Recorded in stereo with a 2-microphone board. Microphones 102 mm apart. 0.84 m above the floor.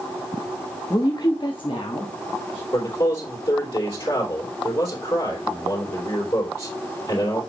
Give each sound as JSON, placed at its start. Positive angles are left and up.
{"t": 0.9, "sound": "a woman speaking", "side_deg": 40, "distance_m": 0.7}
{"t": 2.7, "sound": "a man speaking", "side_deg": 50, "distance_m": 3.0}